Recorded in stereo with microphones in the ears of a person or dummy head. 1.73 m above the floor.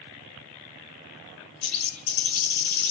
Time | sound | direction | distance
1.6 | a bird | 80° left | 2 m